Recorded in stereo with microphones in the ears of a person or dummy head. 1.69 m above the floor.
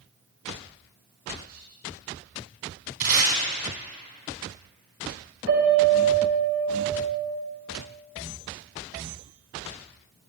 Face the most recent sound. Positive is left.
turn(degrees=-55)  # may be behind; listen again after turning